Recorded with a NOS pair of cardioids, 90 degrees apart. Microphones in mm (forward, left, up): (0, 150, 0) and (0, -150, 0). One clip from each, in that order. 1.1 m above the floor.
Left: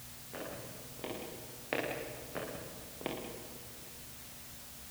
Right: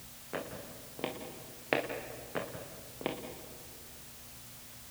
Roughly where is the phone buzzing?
I don't hear a phone buzzing.